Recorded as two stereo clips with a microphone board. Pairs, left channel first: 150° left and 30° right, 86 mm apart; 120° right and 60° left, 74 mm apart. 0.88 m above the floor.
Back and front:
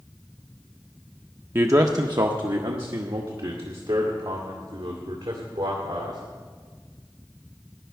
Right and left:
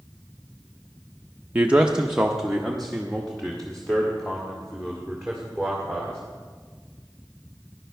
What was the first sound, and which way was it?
A man speaking, 5° left.